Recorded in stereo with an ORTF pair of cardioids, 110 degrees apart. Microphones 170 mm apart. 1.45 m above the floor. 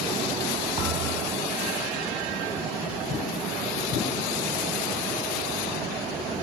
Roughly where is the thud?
Ahead right.